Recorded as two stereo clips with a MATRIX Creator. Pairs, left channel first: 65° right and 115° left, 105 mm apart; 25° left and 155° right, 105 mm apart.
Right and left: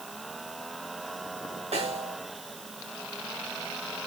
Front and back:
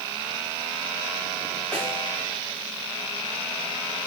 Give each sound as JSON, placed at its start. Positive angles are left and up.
{"t": 1.7, "sound": "a snare drum", "azimuth_deg": 100, "distance_m": 8.0}